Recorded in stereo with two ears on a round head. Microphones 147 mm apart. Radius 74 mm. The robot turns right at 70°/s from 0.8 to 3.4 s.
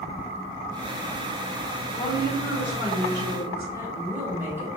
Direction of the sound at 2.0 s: 145° left.